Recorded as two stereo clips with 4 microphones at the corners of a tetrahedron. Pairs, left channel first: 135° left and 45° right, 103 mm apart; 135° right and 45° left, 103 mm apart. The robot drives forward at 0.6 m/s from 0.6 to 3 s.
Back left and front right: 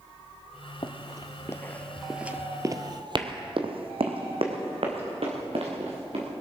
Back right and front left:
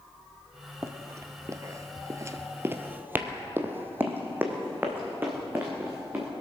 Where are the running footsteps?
105° left, 1.0 m; by 6.3 s 25° right, 4.5 m.